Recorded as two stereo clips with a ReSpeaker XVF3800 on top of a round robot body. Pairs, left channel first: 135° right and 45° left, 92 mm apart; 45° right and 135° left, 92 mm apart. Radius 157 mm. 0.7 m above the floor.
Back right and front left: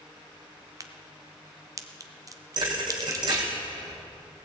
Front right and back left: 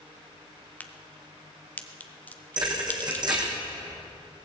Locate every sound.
0.8 s a crack: 20° left, 1.3 m
2.6 s a thud: 90° left, 3 m